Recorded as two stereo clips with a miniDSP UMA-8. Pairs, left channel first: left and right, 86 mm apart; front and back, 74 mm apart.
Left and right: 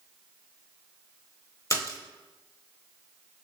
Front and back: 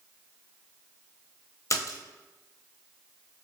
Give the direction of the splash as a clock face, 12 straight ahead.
11 o'clock.